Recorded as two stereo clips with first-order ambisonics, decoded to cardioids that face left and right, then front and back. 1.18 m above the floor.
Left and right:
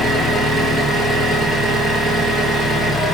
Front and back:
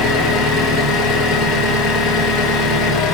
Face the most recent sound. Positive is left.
turn(degrees=5)